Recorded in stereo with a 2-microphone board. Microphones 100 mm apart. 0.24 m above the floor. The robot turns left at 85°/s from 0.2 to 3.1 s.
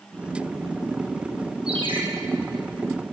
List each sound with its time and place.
1.7 s a ringtone: 80° right, 2.5 m; by 2.0 s 50° right (ahead or behind), 2.5 m